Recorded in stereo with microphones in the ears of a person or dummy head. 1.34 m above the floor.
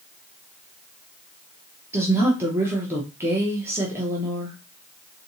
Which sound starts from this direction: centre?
A woman speaking, at 1.9 s.